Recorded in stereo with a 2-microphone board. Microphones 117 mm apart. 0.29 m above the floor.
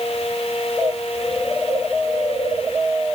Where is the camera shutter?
I don't hear a camera shutter.